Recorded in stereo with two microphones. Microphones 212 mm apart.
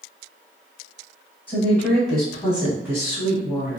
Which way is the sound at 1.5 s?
10° left (ahead or behind).